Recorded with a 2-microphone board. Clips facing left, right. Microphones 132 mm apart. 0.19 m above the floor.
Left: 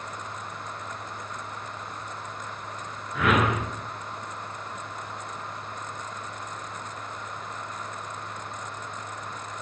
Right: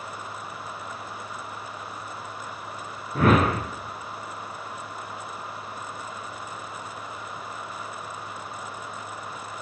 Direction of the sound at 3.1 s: 40° right (ahead or behind).